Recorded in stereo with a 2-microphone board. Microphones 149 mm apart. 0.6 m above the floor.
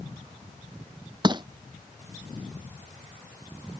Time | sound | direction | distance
1.2 | crushing | 30° right (ahead or behind) | ?